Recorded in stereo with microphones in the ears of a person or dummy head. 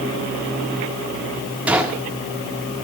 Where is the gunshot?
5° right (ahead or behind), 2 m.